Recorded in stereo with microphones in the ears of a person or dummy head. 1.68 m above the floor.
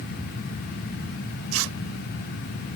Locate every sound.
1.5 s tearing paper: 80° right